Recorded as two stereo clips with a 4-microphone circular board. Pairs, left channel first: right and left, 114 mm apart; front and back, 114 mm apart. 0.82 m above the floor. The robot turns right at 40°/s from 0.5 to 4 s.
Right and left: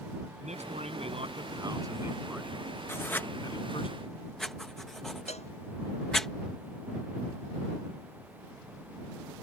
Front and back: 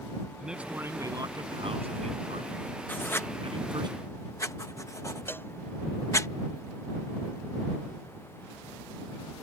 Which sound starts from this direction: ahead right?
Writing, at 2.9 s.